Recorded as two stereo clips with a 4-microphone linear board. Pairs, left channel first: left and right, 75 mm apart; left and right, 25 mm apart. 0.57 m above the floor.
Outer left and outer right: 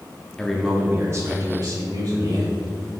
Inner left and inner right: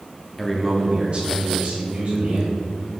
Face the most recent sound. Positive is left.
turn(degrees=-65)  # may be behind; listen again after turning